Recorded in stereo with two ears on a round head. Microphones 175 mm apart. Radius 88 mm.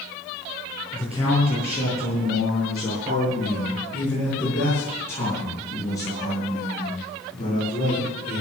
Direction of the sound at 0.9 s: 5° right (ahead or behind).